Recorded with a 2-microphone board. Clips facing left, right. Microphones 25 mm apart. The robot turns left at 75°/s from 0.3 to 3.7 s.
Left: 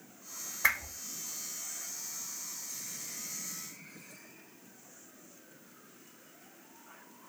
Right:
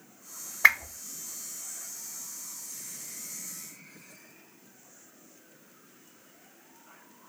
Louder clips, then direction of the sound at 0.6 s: Right 8 dB; 40° right (ahead or behind).